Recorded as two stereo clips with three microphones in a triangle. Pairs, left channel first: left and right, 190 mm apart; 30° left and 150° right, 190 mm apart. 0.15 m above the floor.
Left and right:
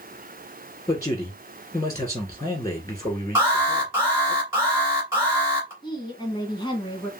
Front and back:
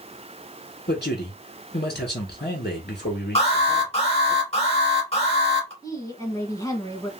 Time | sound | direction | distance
0.9 | a man speaking | 20° left | 2 m
3.4 | an alarm | 20° right | 2.5 m
5.8 | a woman speaking | 75° left | 1.1 m